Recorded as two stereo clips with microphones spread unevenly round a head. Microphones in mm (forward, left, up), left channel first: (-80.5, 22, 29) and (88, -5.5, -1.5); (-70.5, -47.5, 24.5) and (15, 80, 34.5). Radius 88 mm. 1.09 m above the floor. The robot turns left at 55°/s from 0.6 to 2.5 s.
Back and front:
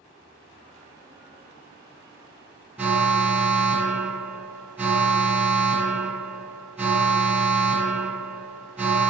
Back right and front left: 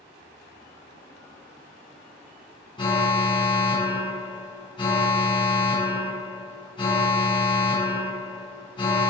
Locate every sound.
2.8 s an alarm: 75° right, 1.6 m